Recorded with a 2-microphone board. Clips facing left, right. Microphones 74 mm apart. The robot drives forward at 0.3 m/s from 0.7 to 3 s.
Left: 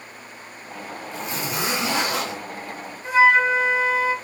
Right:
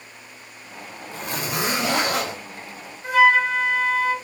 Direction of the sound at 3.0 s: 55° right (ahead or behind).